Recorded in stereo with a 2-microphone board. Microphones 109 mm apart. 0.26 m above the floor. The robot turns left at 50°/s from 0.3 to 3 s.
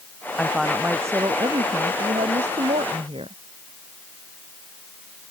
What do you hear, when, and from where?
0.4 s a woman speaking: 10° left; by 3.4 s 120° right